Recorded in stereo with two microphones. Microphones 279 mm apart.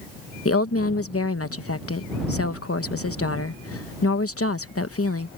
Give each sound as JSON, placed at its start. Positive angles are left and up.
{"t": 0.5, "sound": "a woman speaking", "side_deg": 55}